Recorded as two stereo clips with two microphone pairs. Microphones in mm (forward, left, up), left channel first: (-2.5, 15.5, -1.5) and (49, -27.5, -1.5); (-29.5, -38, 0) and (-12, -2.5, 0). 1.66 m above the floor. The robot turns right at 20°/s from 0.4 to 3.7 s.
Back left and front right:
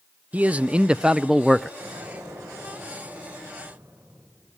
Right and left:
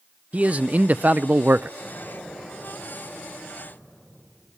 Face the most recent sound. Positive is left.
turn(degrees=-5)